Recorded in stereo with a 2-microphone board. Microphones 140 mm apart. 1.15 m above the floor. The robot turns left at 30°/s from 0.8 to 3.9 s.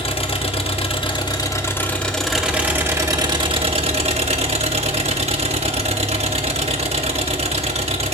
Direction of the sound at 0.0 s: 45° left.